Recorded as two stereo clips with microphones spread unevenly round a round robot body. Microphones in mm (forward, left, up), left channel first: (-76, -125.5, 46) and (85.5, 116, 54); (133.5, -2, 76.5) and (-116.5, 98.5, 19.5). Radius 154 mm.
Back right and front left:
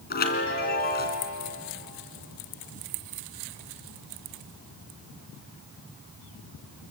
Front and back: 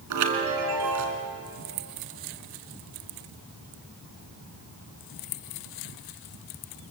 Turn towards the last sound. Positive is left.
turn(degrees=175)